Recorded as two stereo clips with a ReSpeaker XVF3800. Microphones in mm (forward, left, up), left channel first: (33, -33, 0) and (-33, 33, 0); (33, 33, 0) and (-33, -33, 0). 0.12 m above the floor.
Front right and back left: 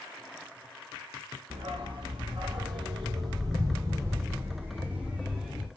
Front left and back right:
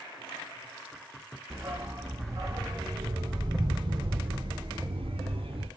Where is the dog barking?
160° left, 3 m; by 5.7 s 140° right, 2.5 m.